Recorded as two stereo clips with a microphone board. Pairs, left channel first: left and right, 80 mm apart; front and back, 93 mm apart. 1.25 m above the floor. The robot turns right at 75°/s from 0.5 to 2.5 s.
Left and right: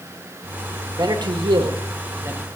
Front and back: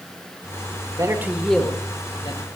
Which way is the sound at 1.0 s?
130° right.